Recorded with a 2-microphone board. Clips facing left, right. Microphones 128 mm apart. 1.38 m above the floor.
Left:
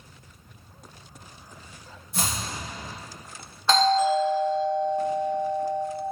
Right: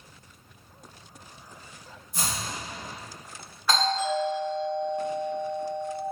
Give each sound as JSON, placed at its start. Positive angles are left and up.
{"t": 2.1, "sound": "chopping", "side_deg": 70, "distance_m": 1.3}
{"t": 3.7, "sound": "a doorbell", "side_deg": 25, "distance_m": 2.5}